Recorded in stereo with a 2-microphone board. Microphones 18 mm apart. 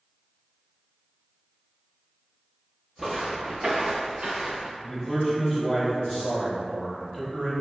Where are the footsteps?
15° right (ahead or behind), 0.7 m; by 4.7 s 70° right (ahead or behind), 1.1 m.